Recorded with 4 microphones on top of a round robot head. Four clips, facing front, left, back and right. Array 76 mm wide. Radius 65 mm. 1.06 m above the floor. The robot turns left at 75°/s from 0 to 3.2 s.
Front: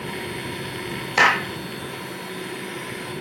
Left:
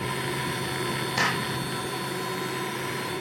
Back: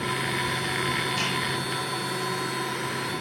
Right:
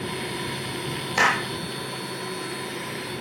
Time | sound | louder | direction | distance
1.2 | a clap | right 7 dB, front 10 dB | 15° right | ?